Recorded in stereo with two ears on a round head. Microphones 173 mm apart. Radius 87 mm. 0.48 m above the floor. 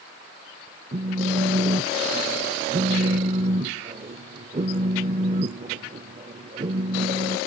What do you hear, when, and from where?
0.9 s a phone buzzing: 30° right (ahead or behind), 0.6 m